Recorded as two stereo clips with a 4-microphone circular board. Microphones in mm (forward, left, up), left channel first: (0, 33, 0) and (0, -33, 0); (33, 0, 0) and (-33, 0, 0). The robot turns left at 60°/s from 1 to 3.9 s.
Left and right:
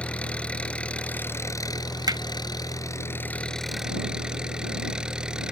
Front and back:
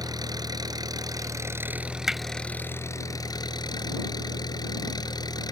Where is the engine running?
165° left; by 5.5 s 10° right.